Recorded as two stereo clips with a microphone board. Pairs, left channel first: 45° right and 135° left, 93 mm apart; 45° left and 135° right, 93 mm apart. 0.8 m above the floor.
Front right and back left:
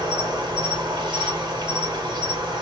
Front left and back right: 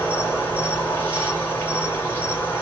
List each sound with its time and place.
0.0 s an insect: 110° left, 3.5 m